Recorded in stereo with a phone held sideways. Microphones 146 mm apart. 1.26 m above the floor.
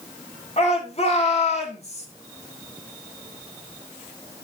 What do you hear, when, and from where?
0.6 s a shout: 45° left (ahead or behind), 4 m; by 2.1 s 50° left (ahead or behind), 3 m